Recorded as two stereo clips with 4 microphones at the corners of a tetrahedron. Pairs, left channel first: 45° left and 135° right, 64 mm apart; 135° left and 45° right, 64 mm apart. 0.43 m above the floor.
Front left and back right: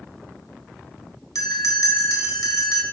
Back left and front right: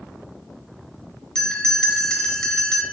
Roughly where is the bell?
Ahead left.